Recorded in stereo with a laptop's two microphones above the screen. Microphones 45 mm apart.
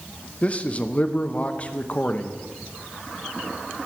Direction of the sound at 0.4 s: 35° left (ahead or behind).